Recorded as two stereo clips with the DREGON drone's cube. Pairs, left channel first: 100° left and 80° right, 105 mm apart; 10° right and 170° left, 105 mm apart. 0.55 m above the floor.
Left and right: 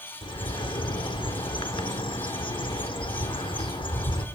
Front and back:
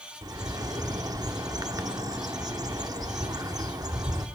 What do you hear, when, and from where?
0.2 s a bird: 125° left, 0.7 m